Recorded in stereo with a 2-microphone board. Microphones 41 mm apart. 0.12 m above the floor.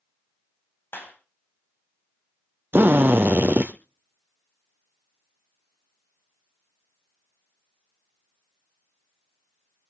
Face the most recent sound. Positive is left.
turn(degrees=-65)  # may be behind; listen again after turning